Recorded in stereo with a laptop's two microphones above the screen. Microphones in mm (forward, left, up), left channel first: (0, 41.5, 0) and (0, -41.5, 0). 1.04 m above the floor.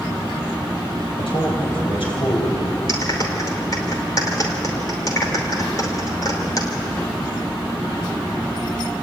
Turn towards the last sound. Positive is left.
turn(degrees=45)  # may be behind; listen again after turning